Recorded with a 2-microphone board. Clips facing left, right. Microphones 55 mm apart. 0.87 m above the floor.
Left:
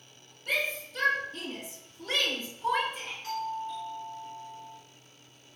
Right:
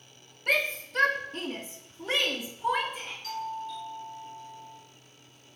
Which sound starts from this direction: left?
A doorbell, at 3.2 s.